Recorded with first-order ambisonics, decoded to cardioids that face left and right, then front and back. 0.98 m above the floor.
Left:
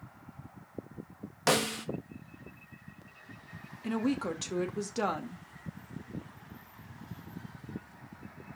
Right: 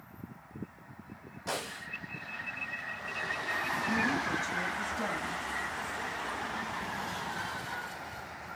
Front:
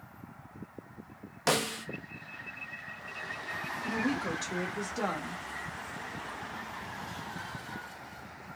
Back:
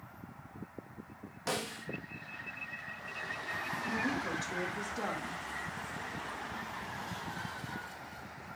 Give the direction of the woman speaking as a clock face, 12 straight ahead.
10 o'clock.